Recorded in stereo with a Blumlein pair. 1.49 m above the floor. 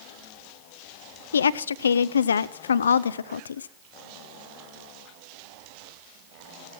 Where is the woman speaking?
70° left, 0.5 m.